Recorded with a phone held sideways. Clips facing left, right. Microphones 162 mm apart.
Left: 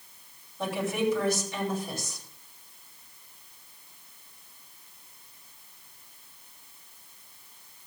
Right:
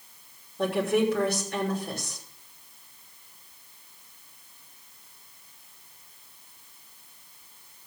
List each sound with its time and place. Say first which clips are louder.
0.6 s a woman speaking: right 4 dB; 60° right (ahead or behind), 6 m